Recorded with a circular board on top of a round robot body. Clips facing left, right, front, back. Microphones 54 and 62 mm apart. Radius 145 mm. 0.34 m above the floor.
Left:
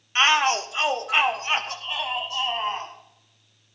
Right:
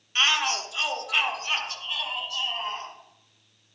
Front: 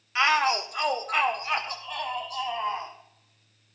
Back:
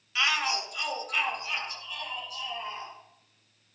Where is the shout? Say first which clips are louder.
Left 5 dB, front 6 dB; 40° left, 1.7 m; by 2.9 s 30° left, 4 m.